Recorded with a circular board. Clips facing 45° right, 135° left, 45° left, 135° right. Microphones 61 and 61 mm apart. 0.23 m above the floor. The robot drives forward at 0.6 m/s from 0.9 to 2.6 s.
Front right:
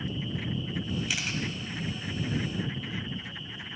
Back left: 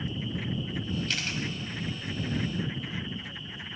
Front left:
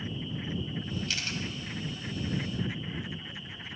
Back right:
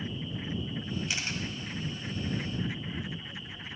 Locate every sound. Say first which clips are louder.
1.1 s a camera shutter: even, even; 110° right, 1.6 m; by 1.4 s 120° right, 1.6 m